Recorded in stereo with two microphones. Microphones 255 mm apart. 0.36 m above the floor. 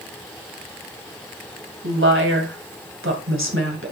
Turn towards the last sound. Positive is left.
turn(degrees=-55)  # may be behind; listen again after turning